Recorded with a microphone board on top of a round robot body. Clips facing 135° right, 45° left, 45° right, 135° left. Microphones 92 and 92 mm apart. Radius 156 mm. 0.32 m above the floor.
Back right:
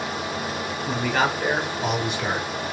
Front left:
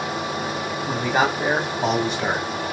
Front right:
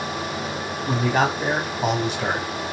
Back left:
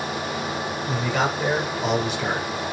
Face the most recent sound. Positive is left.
turn(degrees=15)